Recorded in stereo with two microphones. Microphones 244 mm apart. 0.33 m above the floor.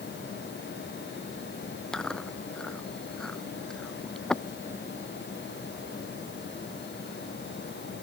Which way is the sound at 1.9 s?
5° left (ahead or behind).